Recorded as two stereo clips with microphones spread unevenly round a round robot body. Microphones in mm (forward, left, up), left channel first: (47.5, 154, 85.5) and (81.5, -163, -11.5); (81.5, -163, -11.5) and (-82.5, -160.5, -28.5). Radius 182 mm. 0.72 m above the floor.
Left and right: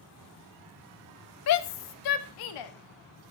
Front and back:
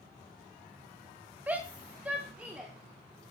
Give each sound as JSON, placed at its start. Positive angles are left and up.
{"t": 1.5, "sound": "a shout", "azimuth_deg": 115, "distance_m": 0.7}